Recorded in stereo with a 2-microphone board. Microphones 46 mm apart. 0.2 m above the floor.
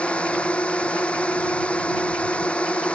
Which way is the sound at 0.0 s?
25° left (ahead or behind).